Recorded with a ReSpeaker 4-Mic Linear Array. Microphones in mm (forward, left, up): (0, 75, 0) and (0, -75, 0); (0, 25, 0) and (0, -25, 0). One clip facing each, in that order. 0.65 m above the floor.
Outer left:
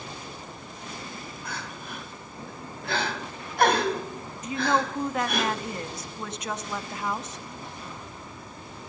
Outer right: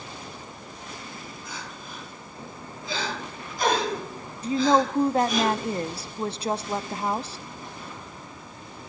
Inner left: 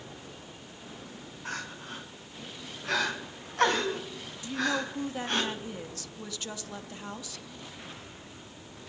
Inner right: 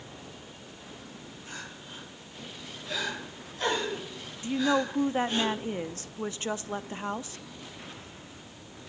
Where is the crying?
70° left (ahead or behind), 4 m.